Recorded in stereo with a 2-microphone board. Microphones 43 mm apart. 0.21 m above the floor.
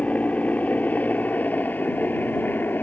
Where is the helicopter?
40° left (ahead or behind); by 2.8 s 55° left (ahead or behind).